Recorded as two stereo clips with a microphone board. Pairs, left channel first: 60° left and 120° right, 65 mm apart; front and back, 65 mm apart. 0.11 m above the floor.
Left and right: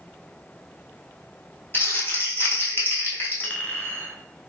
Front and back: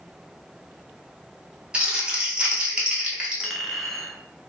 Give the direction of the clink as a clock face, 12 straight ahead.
9 o'clock.